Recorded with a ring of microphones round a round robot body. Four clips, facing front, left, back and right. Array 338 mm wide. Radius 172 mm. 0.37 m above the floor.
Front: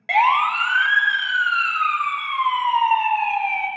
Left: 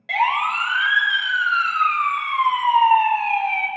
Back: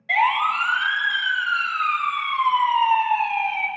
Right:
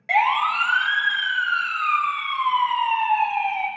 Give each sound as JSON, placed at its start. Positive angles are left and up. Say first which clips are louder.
{"t": 0.1, "sound": "a siren", "louder": "right 1 dB, front 3 dB", "azimuth_deg": -5, "distance_m": 2.0}